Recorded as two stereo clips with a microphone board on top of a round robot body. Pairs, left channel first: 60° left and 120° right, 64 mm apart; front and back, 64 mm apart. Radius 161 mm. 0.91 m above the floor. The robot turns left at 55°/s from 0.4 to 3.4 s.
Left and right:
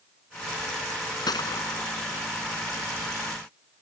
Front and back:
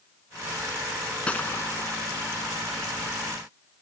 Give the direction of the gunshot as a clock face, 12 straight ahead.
10 o'clock.